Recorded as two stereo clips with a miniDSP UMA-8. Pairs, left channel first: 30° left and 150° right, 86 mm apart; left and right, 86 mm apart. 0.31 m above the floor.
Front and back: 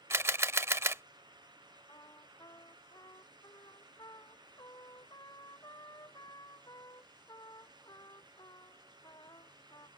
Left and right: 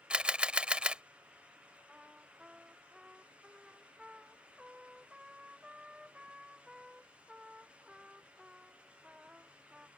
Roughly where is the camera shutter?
Behind right.